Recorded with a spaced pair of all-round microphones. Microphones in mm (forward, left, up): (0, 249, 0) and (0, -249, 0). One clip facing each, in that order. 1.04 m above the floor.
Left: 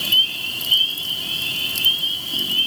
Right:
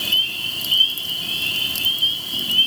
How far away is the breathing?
No breathing in this recording.